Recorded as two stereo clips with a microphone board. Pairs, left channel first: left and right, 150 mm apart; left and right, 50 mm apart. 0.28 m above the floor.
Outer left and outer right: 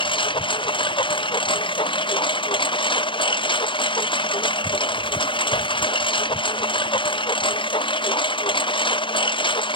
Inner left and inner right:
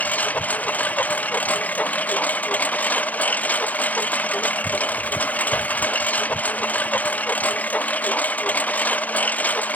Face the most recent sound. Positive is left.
turn(degrees=35)  # may be behind; listen again after turning